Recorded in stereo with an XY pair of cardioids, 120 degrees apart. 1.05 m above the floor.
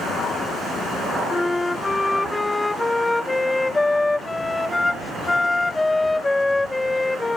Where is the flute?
15° left.